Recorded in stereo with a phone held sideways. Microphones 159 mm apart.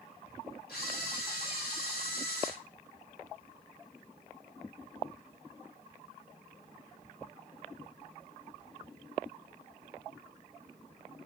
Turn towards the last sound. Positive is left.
turn(degrees=75)  # may be behind; listen again after turning